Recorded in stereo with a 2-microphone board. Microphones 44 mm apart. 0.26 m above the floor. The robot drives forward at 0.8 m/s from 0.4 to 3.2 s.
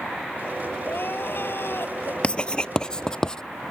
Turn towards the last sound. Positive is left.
turn(degrees=15)  # may be behind; listen again after turning